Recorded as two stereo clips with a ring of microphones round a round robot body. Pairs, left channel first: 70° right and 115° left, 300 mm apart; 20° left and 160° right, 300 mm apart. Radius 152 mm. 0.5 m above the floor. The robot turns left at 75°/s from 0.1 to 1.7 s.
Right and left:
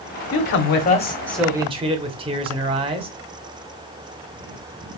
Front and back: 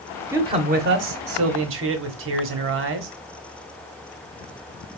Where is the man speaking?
75° right, 0.8 m; by 3.1 s straight behind, 0.8 m.